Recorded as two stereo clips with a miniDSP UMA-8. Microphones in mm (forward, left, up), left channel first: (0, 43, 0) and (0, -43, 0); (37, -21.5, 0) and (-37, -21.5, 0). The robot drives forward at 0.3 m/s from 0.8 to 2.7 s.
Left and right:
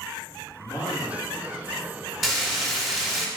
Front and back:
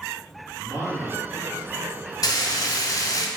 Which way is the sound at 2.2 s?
Straight ahead.